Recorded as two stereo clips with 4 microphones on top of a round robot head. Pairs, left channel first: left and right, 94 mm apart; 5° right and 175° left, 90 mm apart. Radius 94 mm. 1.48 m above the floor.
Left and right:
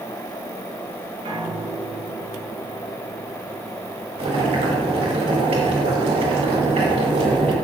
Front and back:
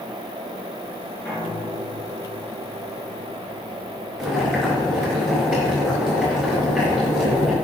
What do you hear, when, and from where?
1.2 s a piano: 80° right, 4.5 m
4.2 s boiling: 95° right, 5 m